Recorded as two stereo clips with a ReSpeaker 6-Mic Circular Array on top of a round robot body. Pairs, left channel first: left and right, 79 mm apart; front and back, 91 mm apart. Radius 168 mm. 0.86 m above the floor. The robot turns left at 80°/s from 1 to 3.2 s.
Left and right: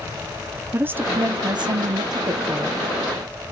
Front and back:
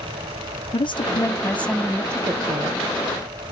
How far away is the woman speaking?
About 0.8 m.